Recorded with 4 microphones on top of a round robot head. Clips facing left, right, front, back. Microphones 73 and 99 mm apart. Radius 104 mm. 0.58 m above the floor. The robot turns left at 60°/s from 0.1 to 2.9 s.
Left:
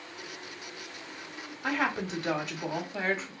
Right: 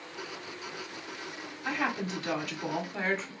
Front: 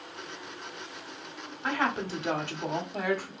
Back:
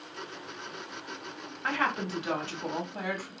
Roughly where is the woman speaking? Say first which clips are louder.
Left 2 dB, front 1 dB; left.